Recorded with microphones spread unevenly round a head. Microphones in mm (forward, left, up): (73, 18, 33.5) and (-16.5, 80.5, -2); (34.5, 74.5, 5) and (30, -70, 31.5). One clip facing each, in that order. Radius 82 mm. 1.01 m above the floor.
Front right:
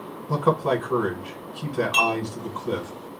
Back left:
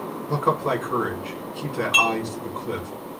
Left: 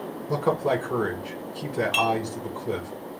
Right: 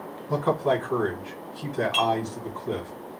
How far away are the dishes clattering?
About 0.9 m.